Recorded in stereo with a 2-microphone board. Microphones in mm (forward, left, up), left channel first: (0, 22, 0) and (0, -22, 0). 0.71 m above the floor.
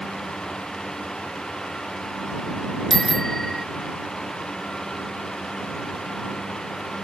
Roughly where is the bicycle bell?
Centre.